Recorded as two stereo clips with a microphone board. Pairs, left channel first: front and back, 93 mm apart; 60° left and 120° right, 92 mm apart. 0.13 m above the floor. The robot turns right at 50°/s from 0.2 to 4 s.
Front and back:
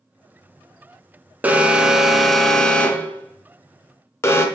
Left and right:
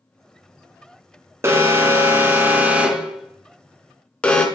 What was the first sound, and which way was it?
An alarm, 130° right.